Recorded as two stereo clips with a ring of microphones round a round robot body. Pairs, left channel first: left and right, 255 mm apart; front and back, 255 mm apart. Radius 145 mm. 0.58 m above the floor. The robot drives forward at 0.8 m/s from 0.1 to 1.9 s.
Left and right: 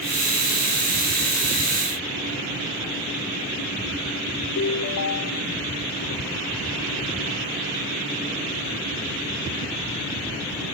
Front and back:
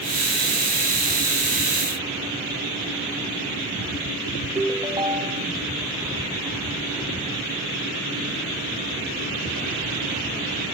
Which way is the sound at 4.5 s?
110° left.